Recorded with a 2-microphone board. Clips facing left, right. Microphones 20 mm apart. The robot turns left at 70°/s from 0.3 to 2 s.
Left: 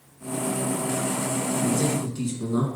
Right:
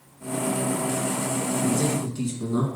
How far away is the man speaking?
About 1.7 m.